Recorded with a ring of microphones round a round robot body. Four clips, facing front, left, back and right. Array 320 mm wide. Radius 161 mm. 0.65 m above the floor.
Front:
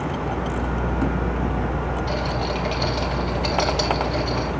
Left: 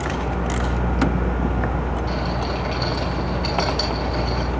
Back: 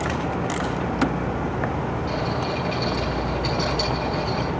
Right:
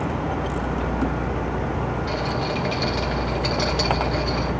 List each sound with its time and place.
2.1 s a rattle: 30° right, 3.5 m